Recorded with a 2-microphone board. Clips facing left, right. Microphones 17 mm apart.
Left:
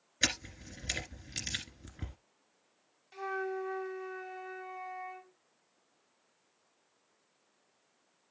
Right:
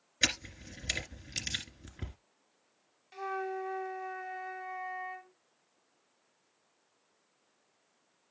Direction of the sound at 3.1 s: 5° right (ahead or behind).